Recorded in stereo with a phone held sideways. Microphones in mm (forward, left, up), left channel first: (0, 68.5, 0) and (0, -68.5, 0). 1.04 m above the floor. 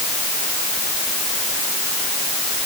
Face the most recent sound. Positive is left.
No sound to turn to.